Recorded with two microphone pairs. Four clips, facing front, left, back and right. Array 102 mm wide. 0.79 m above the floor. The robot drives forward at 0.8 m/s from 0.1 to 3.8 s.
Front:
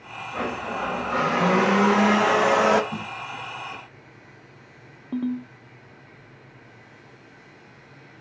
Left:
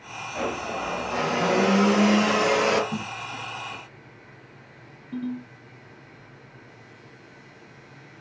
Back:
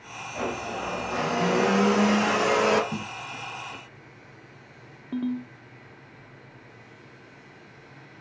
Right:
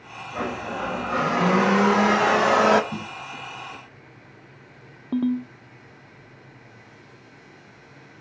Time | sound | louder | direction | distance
0.3 | a blender | even, front 2 dB | 20° right | 3 m
2.9 | a snare drum | left 1 dB, front 1 dB | 175° right | 2 m
5.1 | a ringtone | right 8 dB, front 2 dB | 90° right | 0.7 m